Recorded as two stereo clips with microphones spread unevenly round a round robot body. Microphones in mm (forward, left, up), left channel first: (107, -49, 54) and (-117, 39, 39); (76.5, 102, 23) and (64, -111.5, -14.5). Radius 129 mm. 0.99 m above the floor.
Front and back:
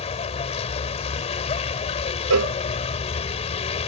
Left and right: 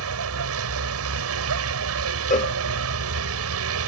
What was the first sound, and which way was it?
A vehicle, 85° right.